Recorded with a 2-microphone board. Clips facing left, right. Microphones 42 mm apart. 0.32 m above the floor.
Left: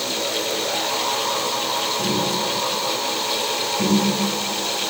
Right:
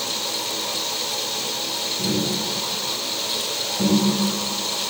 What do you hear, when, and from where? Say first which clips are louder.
2.0 s tapping: left 2 dB; centre (ahead or behind), 1.9 m